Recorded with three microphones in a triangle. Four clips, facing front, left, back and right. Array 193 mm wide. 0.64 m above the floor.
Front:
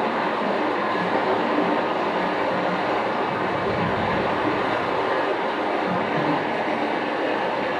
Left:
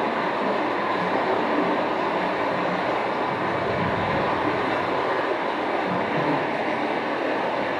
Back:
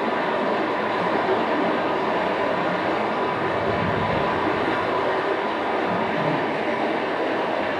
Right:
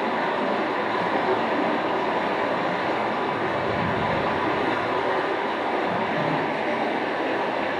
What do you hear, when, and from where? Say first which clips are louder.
0.0 s running water: even, even; 30° left, 3 m